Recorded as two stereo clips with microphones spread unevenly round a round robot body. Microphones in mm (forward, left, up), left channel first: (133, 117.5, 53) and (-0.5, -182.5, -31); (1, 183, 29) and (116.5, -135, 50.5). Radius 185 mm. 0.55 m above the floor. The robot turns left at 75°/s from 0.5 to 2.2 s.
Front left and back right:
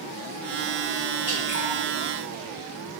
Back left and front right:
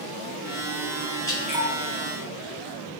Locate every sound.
1.3 s dripping: 40° left, 1.4 m; by 1.7 s 5° left, 1.4 m